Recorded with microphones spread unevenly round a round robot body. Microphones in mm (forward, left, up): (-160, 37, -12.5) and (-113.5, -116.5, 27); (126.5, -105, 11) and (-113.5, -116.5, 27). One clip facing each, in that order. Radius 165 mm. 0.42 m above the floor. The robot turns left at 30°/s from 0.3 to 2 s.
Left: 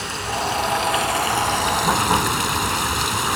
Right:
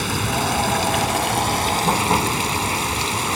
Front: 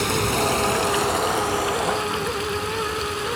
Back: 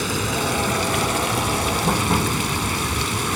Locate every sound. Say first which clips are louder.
0.0 s running water: right 3 dB, front 2 dB; 95° right, 0.8 m; by 3.4 s 150° right, 0.8 m